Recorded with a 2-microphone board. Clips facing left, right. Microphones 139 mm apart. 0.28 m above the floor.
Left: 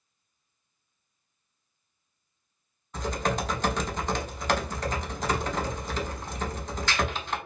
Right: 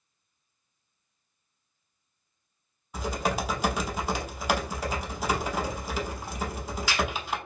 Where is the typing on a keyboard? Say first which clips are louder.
Even; 10° right (ahead or behind), 0.5 m.